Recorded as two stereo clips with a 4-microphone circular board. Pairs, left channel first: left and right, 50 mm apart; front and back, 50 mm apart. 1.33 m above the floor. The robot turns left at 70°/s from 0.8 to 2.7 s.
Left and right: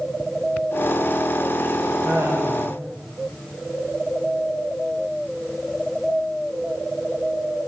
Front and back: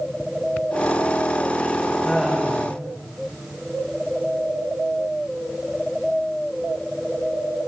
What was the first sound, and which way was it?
Laughter, 80° right.